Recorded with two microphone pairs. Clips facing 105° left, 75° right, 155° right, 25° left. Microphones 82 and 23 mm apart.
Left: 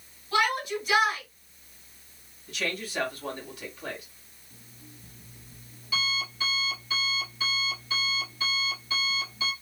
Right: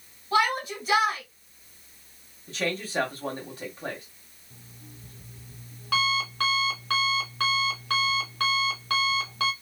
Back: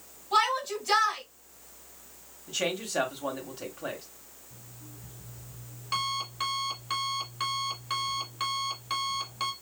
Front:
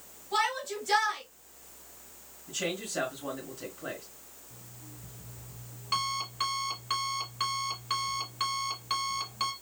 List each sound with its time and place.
0.3 s a shout: 120° right, 2 m
2.5 s a man speaking: 125° right, 1.7 m
4.5 s an alarm clock: 70° right, 1.6 m